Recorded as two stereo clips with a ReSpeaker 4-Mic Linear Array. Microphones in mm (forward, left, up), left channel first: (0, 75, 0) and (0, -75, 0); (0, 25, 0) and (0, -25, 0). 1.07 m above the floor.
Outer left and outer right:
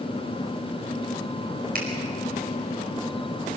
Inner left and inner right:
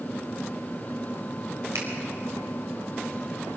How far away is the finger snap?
About 5 m.